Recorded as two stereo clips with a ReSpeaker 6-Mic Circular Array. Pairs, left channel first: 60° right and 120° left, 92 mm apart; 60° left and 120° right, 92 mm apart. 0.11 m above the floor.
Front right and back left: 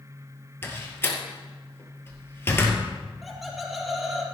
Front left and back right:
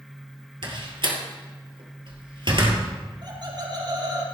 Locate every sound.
0.6 s a door slam: 120° right, 2 m
3.2 s laughter: 150° right, 3 m